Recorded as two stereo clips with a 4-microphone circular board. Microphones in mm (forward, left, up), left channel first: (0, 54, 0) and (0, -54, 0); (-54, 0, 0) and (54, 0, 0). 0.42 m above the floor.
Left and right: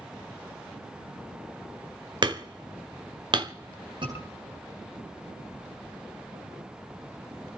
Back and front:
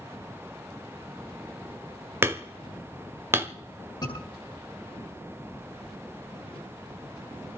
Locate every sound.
2.2 s hammering: 60° right, 1.3 m
4.0 s a scream: 130° right, 9.5 m